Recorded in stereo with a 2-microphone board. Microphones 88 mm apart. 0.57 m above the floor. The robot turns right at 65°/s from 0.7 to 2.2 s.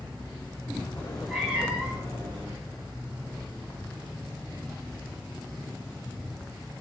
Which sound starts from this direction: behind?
A cat meowing, at 1.0 s.